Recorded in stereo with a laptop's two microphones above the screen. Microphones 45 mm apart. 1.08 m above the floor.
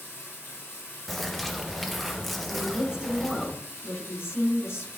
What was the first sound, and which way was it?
Running water, 60° left (ahead or behind).